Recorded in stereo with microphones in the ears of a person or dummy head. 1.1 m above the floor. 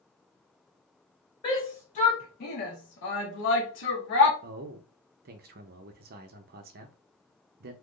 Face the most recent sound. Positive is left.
turn(degrees=-45)  # may be behind; listen again after turning